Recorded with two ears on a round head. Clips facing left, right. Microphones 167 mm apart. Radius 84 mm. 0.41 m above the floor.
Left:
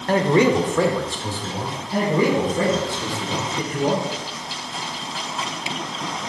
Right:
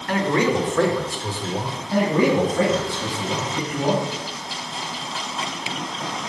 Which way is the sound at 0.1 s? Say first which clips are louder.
Left 4 dB; 30° left (ahead or behind).